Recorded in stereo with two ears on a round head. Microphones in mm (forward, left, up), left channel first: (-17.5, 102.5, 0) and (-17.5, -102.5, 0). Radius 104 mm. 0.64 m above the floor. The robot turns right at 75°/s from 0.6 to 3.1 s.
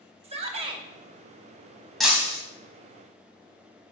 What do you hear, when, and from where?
0.2 s a shout: 25° right (ahead or behind), 1.0 m; by 0.8 s 15° right (ahead or behind), 1.0 m
2.0 s breaking glass: centre (ahead or behind), 2.0 m; by 2.4 s 30° right (ahead or behind), 2.0 m